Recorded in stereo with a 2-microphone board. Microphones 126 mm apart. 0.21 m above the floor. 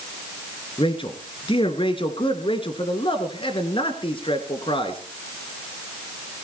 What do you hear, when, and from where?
0.8 s a man speaking: 45° left (ahead or behind), 2.5 m